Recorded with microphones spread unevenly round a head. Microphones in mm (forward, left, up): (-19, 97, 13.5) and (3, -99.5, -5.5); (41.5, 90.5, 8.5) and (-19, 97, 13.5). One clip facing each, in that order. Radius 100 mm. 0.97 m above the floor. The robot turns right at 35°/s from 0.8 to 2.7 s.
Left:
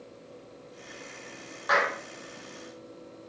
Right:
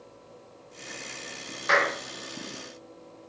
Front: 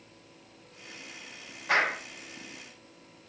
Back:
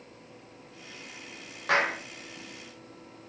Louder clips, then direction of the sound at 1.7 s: Right 2 dB, even; 135° right.